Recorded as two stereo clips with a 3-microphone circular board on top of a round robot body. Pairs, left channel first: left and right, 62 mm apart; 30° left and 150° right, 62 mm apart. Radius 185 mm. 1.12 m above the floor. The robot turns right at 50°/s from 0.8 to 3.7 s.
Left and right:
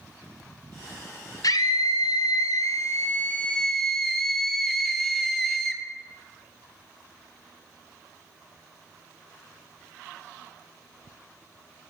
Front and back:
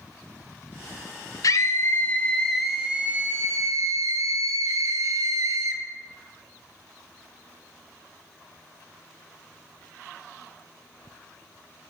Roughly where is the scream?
Ahead left.